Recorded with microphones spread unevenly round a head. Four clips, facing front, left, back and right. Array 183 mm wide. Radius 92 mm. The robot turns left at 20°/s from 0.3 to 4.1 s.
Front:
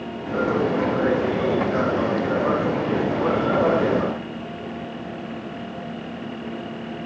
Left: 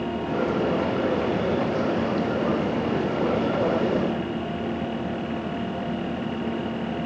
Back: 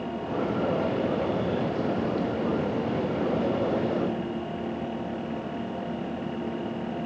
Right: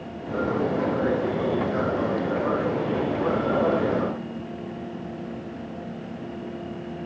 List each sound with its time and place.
Only background noise.